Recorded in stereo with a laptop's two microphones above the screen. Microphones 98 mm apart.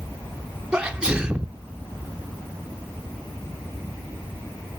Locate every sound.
0.7 s a sneeze: 10° right (ahead or behind), 0.6 m